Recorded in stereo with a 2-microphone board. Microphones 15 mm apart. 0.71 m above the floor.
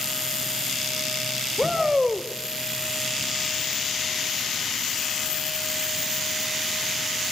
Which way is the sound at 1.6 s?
30° right (ahead or behind).